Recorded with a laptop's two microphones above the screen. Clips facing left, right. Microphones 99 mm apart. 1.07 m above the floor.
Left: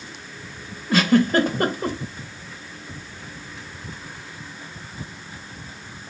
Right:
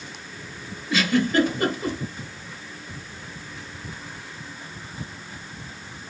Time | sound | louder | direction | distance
0.9 | a giggle | left 4 dB | 50° left (ahead or behind) | 1.0 m